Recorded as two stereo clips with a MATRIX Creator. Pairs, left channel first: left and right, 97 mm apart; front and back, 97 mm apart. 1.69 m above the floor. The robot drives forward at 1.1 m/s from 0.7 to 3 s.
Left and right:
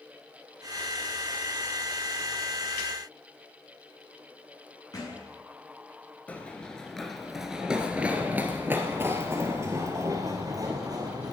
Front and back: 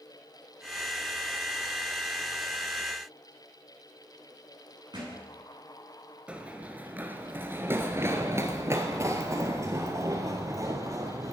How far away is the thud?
About 8 m.